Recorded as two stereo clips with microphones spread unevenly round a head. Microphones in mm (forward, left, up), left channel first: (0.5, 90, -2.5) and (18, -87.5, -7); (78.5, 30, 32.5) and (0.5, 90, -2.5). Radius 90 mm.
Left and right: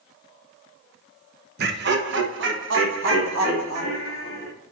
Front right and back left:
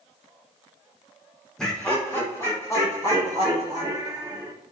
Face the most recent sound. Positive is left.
turn(degrees=-105)